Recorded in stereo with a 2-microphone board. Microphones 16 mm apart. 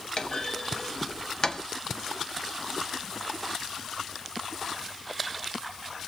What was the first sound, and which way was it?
A clunk, 50° left (ahead or behind).